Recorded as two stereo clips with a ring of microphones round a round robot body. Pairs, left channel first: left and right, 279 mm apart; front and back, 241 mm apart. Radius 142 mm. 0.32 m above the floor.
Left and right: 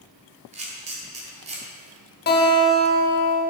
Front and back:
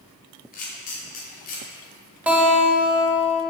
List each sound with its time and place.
0.5 s a camera shutter: 35° right, 1.4 m
2.3 s a guitar: 100° left, 1.2 m